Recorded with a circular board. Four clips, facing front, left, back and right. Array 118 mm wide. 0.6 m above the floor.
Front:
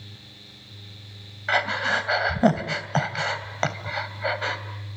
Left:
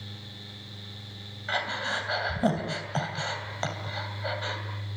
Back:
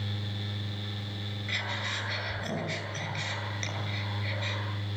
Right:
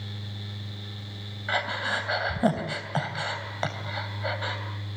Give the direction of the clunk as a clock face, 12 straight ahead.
I don't hear a clunk.